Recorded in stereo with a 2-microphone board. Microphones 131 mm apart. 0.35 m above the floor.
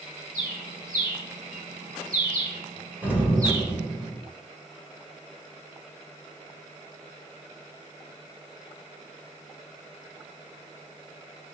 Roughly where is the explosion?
Centre.